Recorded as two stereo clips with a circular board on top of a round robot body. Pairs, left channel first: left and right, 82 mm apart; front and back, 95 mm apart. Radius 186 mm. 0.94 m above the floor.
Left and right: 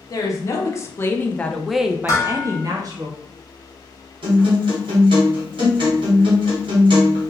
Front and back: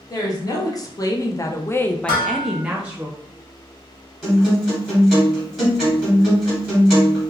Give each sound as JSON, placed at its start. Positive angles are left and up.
{"t": 0.1, "sound": "a woman speaking", "azimuth_deg": 45, "distance_m": 1.1}
{"t": 2.1, "sound": "dishes clattering", "azimuth_deg": 40, "distance_m": 0.6}
{"t": 4.2, "sound": "a guitar", "azimuth_deg": -90, "distance_m": 1.1}